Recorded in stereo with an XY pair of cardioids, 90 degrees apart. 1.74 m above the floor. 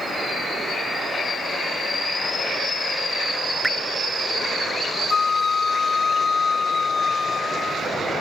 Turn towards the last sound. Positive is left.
turn(degrees=45)